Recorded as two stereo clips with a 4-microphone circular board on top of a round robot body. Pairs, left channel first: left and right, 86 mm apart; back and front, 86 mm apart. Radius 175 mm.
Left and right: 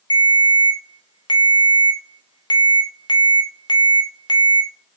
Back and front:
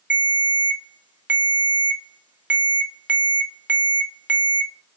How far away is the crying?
I don't hear crying.